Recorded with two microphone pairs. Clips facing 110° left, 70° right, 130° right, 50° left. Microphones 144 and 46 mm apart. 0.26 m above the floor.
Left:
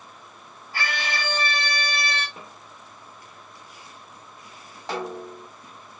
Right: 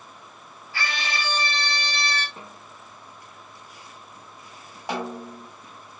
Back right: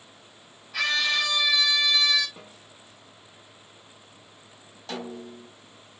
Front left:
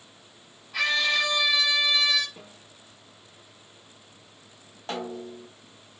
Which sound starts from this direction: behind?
A snare drum, at 2.4 s.